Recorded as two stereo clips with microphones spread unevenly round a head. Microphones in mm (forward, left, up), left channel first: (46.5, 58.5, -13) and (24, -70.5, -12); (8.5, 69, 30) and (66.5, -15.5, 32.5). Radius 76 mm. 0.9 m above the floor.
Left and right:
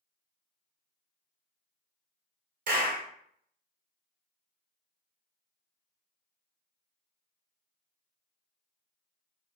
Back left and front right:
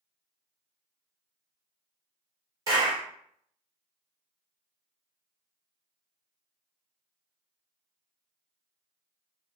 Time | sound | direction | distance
2.7 | a clap | 110° right | 0.9 m